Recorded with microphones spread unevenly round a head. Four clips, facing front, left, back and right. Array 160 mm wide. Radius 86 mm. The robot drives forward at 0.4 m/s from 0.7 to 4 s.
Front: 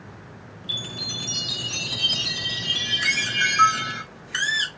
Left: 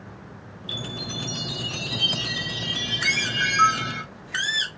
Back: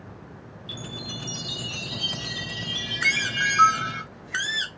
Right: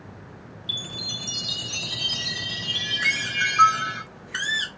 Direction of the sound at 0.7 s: 90° right.